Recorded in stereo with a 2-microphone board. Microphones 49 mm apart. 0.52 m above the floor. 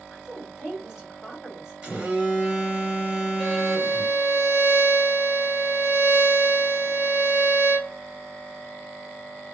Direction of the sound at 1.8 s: 15° right (ahead or behind).